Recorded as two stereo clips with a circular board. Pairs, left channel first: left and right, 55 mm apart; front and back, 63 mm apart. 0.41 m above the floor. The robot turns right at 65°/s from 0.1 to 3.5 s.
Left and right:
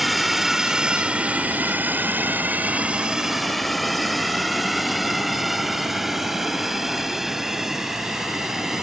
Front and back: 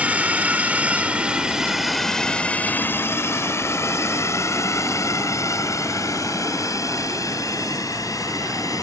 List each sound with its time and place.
0.0 s a drone: 175° right; by 8.8 s 10° right